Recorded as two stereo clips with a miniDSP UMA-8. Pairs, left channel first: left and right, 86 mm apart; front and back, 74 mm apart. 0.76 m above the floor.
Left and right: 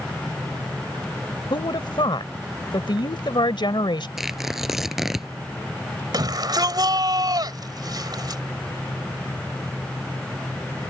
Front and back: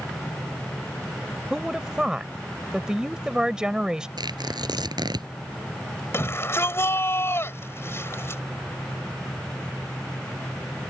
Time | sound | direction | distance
1.5 | a woman speaking | 100° left | ?
4.2 | tearing paper | 175° right | ?
6.1 | a shout | 55° right | ?